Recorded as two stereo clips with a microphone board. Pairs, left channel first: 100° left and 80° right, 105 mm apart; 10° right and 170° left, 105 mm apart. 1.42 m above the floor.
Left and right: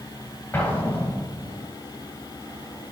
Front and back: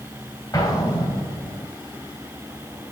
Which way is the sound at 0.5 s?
35° left.